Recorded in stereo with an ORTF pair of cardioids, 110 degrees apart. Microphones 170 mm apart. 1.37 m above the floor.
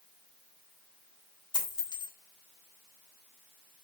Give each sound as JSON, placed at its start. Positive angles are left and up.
{"t": 1.5, "sound": "a dropped coin", "azimuth_deg": 25, "distance_m": 2.5}